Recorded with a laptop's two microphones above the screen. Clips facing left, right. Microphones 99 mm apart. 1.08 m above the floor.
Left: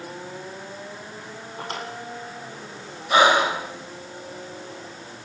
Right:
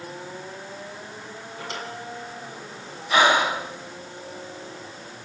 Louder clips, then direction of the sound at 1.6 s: Left 2 dB; 50° left (ahead or behind).